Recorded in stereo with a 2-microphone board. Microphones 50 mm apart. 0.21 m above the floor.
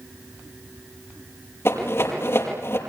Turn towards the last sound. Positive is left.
turn(degrees=55)  # may be behind; listen again after turning